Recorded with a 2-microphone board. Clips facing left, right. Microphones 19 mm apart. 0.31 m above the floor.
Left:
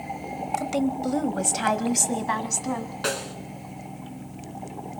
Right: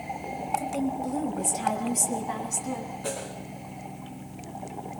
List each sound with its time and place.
0.6 s a woman speaking: 40° left (ahead or behind), 1.2 m; by 2.9 s 45° left (ahead or behind), 2 m
3.0 s a snare drum: 65° left (ahead or behind), 3 m